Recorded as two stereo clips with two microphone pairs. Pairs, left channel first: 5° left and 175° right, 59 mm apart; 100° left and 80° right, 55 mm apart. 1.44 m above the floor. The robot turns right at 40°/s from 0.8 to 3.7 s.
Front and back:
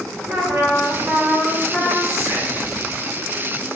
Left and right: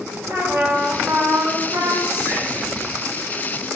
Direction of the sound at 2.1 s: 150° right.